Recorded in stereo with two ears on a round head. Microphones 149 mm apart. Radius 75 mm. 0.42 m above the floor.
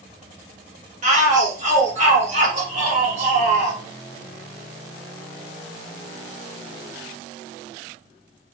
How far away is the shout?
About 1.3 m.